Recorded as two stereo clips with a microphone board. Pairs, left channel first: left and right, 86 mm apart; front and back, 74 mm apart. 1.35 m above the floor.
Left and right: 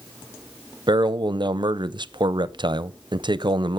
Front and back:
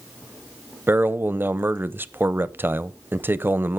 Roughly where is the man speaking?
Behind right.